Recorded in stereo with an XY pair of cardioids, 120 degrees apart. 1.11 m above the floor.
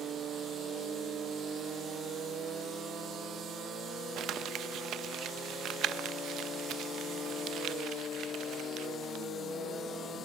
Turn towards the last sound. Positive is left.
turn(degrees=-60)